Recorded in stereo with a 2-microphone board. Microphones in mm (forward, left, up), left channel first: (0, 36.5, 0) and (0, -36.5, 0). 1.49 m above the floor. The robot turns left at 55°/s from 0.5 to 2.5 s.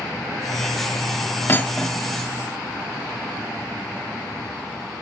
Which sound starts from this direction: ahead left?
Cutlery clinking, at 1.5 s.